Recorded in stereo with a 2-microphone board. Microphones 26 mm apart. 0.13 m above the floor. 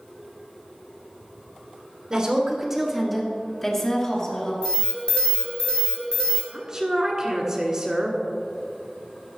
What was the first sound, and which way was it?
A woman speaking, 30° right (ahead or behind).